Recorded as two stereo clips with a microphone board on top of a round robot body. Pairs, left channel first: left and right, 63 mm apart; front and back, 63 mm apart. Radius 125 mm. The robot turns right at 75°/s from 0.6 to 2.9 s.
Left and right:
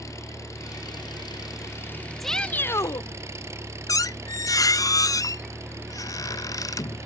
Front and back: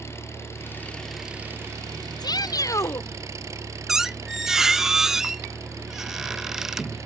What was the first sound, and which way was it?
An engine running, 50° left.